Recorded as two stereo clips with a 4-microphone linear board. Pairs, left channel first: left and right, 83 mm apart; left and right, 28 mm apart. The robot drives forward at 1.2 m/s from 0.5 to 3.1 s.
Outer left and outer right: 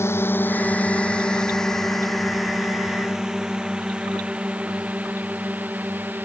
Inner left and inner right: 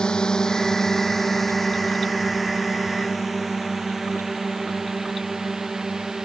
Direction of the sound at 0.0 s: 30° left (ahead or behind).